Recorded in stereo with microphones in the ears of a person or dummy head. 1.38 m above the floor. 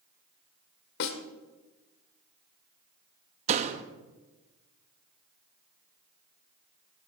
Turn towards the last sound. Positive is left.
turn(degrees=-35)  # may be behind; listen again after turning